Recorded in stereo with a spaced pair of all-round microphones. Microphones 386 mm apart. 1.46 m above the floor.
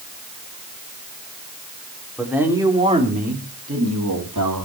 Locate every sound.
2.2 s a man speaking: centre (ahead or behind), 4.5 m; by 4.7 s 60° right (ahead or behind), 3.5 m